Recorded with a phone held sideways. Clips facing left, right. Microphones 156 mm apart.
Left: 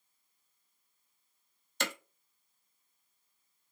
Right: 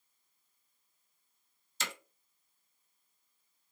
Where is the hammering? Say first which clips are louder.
Left 6 dB; 60° left (ahead or behind), 1.0 m.